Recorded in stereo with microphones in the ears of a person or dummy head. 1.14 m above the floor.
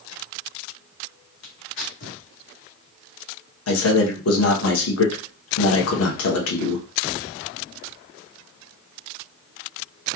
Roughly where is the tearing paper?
Left.